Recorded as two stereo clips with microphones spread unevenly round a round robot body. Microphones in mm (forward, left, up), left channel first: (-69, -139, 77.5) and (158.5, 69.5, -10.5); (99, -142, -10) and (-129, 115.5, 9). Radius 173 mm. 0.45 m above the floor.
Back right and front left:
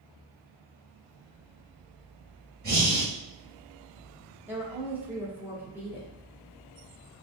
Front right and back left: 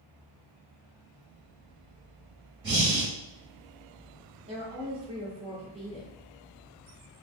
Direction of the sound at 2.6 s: 75° left.